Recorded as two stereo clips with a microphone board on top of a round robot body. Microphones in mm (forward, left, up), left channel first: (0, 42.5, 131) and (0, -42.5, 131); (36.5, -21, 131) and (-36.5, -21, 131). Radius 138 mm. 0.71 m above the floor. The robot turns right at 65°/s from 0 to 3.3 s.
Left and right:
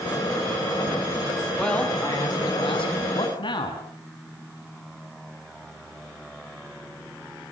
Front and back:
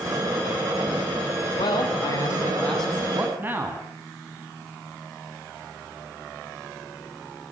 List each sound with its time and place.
1.6 s a man speaking: 5° left, 8 m; by 3.8 s 115° left, 8 m